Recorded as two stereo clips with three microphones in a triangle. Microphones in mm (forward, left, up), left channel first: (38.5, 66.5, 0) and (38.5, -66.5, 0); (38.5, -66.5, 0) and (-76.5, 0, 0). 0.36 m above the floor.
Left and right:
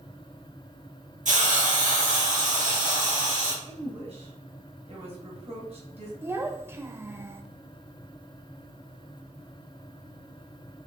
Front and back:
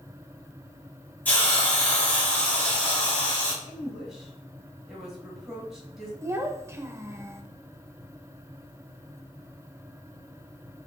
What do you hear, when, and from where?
1.2 s a hiss: 110° right, 2.5 m
3.6 s a woman speaking: 125° right, 2 m
6.2 s a child speaking: 150° right, 0.6 m